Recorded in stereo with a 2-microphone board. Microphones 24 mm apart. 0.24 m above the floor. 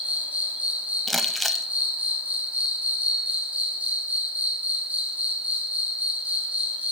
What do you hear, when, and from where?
0.0 s an insect: 85° right, 2.5 m
1.1 s crumpling: centre (ahead or behind), 0.7 m